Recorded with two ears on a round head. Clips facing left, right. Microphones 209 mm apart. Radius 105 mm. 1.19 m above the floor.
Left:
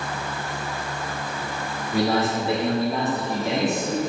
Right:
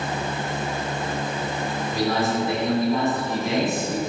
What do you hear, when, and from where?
1.9 s a man speaking: 40° left (ahead or behind), 3 m; by 4.1 s 15° left (ahead or behind), 2.0 m